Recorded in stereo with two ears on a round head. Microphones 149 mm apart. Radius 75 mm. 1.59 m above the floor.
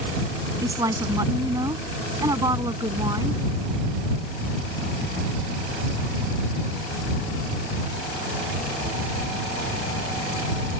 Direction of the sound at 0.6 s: 20° right (ahead or behind).